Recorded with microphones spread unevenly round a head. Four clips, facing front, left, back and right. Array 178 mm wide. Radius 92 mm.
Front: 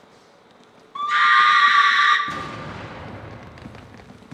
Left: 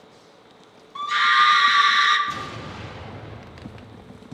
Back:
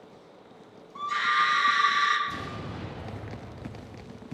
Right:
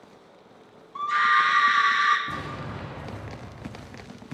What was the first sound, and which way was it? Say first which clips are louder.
A scream: left 2 dB, front 9 dB; straight ahead.